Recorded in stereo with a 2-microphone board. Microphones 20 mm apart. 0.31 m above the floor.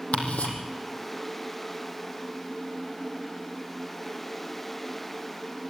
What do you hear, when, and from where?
0.1 s ticking: 70° left (ahead or behind), 4 m